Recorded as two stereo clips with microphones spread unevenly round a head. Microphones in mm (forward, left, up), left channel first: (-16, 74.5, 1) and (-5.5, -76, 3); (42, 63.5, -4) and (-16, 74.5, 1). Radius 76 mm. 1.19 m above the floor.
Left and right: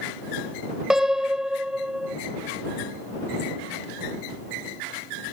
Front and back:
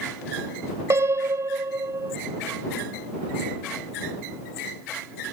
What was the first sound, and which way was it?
A piano, 170° right.